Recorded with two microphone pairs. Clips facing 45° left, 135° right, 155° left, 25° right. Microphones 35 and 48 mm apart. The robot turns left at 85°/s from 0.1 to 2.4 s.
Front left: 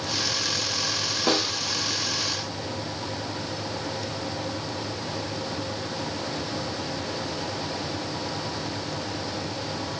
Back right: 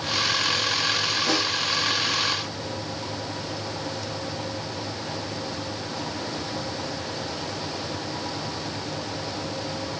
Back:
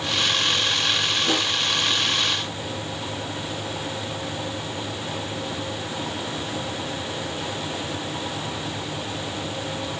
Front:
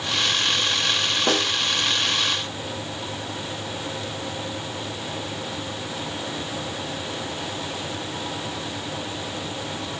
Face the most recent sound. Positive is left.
turn(degrees=-90)